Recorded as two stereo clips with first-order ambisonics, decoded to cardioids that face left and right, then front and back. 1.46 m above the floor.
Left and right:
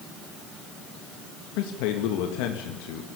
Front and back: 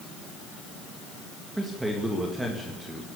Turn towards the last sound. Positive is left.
turn(degrees=95)